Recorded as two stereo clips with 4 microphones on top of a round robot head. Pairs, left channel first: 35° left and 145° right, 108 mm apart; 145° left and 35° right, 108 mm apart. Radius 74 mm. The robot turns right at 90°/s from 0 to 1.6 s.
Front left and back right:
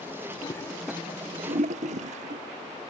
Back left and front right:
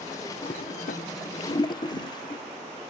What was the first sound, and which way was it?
A toilet flushing, 90° left.